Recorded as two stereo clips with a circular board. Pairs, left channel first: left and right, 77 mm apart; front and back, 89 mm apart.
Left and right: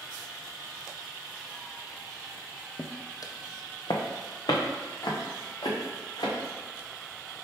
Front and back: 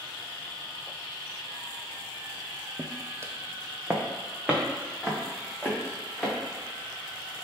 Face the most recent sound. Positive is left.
turn(degrees=95)